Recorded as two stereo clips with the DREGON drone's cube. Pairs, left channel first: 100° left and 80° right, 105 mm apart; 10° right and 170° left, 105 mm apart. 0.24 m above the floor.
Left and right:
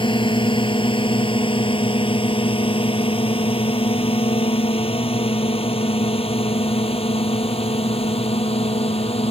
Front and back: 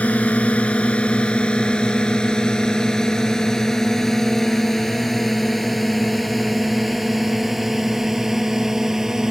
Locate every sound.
0.0 s a drone: 65° left; by 9.3 s 85° left